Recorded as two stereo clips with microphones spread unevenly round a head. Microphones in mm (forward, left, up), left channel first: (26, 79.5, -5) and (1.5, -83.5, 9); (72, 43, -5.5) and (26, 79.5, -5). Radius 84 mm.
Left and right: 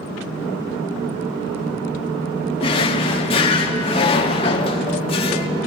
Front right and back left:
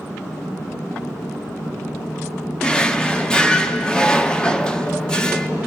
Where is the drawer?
30° left, 1.3 m.